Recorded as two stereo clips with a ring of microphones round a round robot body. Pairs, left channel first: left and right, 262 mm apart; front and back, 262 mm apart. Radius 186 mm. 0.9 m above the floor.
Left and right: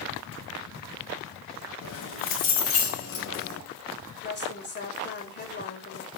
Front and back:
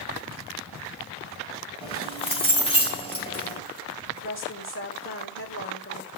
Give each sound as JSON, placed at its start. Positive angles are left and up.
{"t": 1.8, "sound": "keys jangling", "azimuth_deg": 70, "distance_m": 5.0}
{"t": 4.2, "sound": "a woman speaking", "azimuth_deg": 40, "distance_m": 4.0}